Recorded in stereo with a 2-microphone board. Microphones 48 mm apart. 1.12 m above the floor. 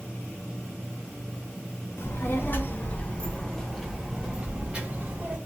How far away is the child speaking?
About 1.1 m.